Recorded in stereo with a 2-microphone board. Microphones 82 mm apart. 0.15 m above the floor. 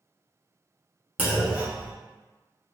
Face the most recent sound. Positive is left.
turn(degrees=-20)  # may be behind; listen again after turning